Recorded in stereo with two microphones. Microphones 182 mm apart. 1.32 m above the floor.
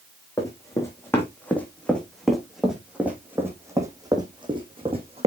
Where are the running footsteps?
20° left (ahead or behind), 3.5 m; by 5.3 s 35° right (ahead or behind), 3 m.